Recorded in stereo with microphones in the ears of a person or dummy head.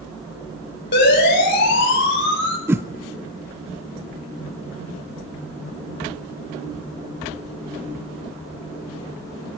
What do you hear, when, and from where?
0.9 s a siren: 60° left (ahead or behind), 9.5 m; by 2.6 s 65° left (ahead or behind), 9 m
2.7 s a whoosh: 10° right (ahead or behind), 0.8 m